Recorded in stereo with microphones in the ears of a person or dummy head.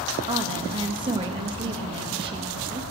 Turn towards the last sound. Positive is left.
turn(degrees=-25)  # may be behind; listen again after turning